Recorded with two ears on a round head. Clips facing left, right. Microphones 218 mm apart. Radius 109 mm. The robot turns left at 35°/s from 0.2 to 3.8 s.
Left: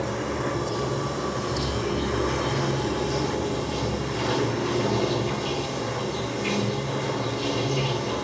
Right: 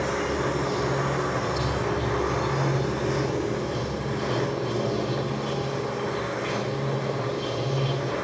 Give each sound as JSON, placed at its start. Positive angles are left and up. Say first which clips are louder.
{"t": 0.0, "sound": "running water", "louder": "right 1 dB", "azimuth_deg": 180, "distance_m": 2.5}